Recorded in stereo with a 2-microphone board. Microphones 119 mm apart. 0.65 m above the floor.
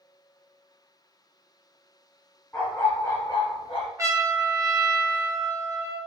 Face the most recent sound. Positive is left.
turn(degrees=-25)  # may be behind; listen again after turning